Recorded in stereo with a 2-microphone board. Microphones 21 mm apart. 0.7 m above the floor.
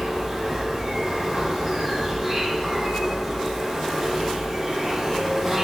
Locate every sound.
0.0 s an insect: 10° right (ahead or behind), 2.0 m